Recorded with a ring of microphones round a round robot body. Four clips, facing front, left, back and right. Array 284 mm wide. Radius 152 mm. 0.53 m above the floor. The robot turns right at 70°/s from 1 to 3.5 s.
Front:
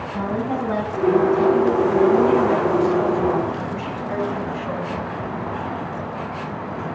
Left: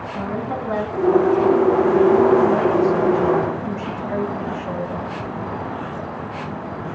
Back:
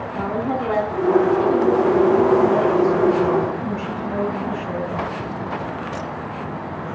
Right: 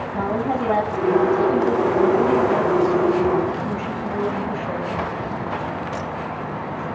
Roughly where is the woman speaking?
Right.